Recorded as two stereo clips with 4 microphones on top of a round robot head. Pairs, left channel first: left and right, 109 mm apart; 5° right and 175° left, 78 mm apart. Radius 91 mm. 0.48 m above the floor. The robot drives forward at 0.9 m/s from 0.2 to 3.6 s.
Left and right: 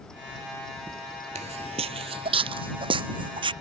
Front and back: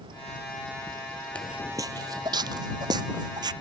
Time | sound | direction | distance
1.4 | footsteps | 80° right | ?